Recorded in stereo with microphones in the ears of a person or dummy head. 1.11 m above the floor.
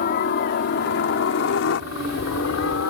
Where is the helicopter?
45° left (ahead or behind); by 2.9 s 70° left (ahead or behind).